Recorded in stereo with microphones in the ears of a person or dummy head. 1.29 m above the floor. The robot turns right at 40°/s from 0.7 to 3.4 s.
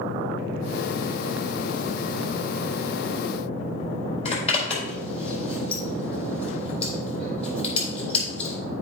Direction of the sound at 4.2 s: 35° left (ahead or behind).